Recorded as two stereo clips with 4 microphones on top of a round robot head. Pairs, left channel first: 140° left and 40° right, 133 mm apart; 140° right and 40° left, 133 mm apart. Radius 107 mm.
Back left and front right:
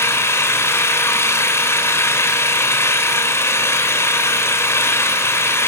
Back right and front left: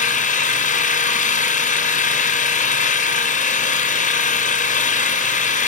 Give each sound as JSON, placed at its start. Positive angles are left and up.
{"t": 0.0, "sound": "an engine running", "azimuth_deg": -150, "distance_m": 2.0}